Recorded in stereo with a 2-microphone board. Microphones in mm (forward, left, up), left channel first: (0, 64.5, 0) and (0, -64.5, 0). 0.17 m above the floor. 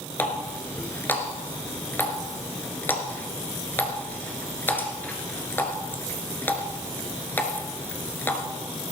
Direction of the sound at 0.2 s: 15° left (ahead or behind).